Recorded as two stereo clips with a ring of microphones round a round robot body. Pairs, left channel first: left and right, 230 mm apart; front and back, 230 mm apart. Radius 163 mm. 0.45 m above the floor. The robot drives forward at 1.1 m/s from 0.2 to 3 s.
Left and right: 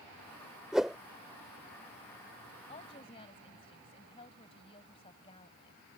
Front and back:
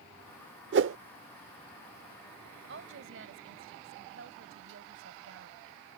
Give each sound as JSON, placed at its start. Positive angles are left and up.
{"t": 0.7, "sound": "a whoosh", "azimuth_deg": -175}
{"t": 2.7, "sound": "a woman speaking", "azimuth_deg": 160}